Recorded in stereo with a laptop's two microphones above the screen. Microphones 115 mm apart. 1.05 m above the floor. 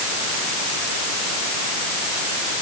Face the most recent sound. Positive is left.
No sound to turn to.